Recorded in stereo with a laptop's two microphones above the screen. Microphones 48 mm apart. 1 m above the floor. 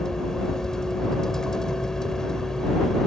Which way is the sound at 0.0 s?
15° left (ahead or behind).